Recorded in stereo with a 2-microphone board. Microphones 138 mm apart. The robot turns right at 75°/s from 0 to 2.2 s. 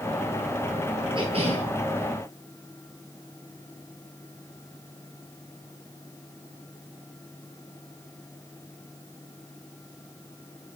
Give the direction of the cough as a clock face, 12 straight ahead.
4 o'clock.